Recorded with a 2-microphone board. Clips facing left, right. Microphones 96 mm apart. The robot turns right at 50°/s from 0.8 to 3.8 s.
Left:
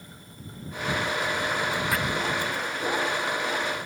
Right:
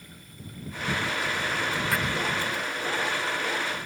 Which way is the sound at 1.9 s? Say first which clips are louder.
Right 1 dB; centre (ahead or behind).